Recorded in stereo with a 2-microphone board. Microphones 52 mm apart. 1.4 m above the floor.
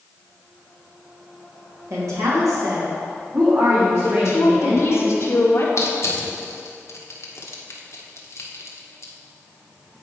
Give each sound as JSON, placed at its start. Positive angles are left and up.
{"t": 1.9, "sound": "a woman speaking", "side_deg": -70, "distance_m": 2.5}
{"t": 4.0, "sound": "a woman speaking", "side_deg": 50, "distance_m": 1.5}
{"t": 5.8, "sound": "crushing", "side_deg": 60, "distance_m": 1.2}